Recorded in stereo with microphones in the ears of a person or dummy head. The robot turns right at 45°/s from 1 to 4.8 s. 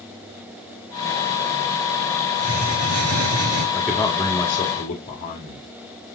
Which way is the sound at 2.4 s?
110° right.